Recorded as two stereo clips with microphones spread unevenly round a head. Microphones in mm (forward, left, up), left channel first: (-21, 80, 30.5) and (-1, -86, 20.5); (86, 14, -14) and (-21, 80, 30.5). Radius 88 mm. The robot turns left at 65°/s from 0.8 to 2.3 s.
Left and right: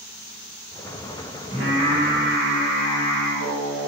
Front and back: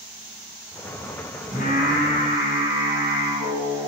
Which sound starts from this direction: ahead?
Singing, at 1.5 s.